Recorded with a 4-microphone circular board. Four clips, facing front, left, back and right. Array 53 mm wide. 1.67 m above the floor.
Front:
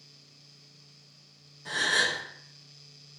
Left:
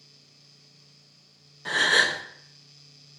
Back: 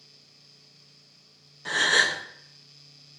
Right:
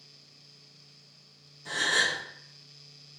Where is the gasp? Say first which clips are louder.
Left 5 dB, back 4 dB; 120° left, 0.8 m.